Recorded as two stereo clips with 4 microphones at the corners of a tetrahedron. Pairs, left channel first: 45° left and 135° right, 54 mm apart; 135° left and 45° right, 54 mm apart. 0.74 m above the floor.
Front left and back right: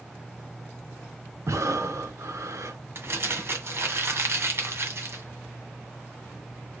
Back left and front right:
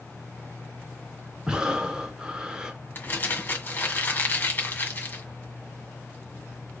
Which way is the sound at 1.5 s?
120° right.